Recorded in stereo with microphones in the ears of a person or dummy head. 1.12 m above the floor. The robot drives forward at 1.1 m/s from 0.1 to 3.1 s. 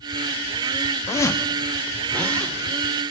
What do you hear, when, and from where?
1.1 s a zipper: 20° left (ahead or behind), 0.6 m; by 2.5 s 5° left (ahead or behind), 2.0 m